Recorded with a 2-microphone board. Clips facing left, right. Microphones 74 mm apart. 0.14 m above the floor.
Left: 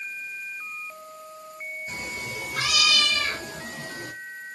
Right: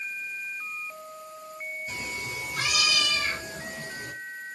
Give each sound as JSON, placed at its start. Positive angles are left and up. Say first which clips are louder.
{"t": 1.9, "sound": "a cat meowing", "louder": "left 2 dB", "side_deg": 40, "distance_m": 1.6}